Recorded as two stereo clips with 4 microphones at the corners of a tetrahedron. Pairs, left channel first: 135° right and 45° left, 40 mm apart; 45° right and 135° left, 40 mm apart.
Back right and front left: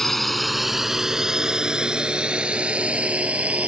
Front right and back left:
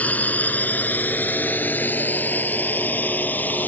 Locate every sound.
0.0 s a drone: 55° right; by 3.7 s 10° right